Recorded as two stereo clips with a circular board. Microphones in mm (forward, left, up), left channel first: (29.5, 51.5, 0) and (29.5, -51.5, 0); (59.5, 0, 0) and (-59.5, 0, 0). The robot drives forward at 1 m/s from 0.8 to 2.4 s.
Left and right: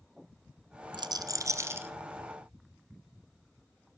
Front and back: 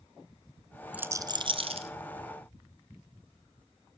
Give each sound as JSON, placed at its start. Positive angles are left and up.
{"t": 0.9, "sound": "a rattle", "azimuth_deg": -105, "distance_m": 0.6}